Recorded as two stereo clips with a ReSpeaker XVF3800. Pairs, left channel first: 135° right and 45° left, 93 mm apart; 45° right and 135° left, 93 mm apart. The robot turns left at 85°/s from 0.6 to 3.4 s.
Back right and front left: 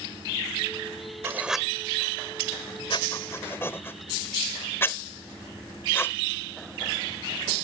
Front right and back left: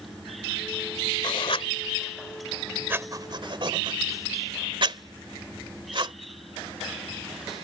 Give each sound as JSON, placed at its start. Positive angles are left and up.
{"t": 1.2, "sound": "writing", "azimuth_deg": -15}